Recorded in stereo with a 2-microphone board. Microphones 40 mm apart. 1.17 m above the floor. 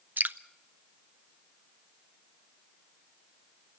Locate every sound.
0.2 s dripping: 50° right (ahead or behind), 0.5 m